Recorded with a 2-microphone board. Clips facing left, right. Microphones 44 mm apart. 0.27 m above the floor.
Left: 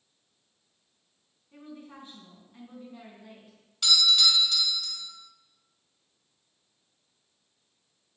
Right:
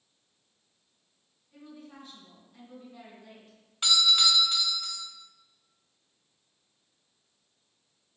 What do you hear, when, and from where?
1.5 s a woman speaking: 35° left (ahead or behind), 3 m; by 3.6 s 5° left (ahead or behind), 3 m
3.8 s a doorbell: 30° right (ahead or behind), 1.5 m